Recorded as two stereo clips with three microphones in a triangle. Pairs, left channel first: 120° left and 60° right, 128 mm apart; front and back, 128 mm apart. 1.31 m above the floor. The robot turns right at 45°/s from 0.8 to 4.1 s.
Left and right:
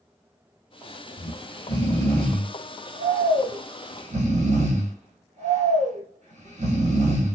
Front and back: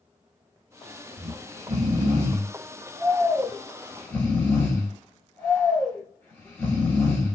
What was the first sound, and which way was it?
Snoring, 160° left.